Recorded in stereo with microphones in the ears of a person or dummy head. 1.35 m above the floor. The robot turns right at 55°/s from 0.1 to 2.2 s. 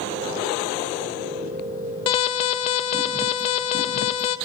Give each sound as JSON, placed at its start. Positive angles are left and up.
{"t": 2.1, "sound": "an alarm", "side_deg": 25, "distance_m": 0.8}